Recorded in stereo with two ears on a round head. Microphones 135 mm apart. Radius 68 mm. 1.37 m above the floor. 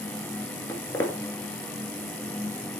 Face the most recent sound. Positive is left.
turn(degrees=15)  # may be behind; listen again after turning